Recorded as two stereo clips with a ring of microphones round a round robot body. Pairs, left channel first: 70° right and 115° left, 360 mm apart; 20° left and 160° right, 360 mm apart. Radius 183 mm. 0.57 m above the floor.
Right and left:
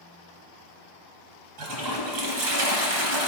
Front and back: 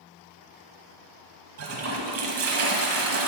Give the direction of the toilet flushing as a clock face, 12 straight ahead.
7 o'clock.